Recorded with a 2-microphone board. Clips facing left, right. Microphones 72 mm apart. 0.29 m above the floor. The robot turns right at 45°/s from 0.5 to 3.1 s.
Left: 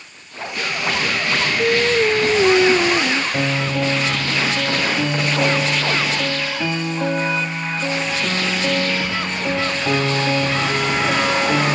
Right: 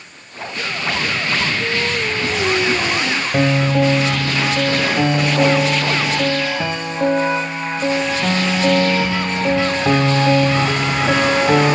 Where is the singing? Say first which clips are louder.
Left 5 dB; 95° left, 0.6 m; by 3.2 s 160° left, 0.6 m.